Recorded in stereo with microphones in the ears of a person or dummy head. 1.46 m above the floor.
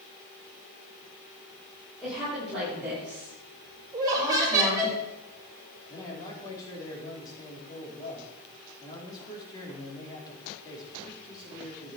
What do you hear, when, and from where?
2.0 s a woman speaking: centre (ahead or behind), 6.5 m; by 4.9 s 15° right (ahead or behind), 8.5 m
3.9 s laughter: 25° right (ahead or behind), 5.5 m
5.9 s a man speaking: 25° left (ahead or behind), 4.5 m